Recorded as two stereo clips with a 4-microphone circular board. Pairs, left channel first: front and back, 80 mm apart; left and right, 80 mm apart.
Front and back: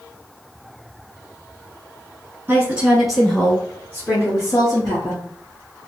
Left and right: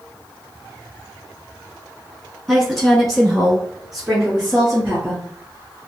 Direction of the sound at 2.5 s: 170° left.